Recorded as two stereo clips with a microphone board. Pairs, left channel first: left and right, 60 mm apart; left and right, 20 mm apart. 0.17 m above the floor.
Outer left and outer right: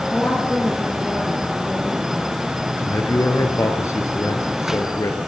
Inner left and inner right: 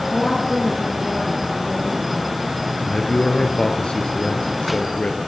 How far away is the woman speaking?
About 4 m.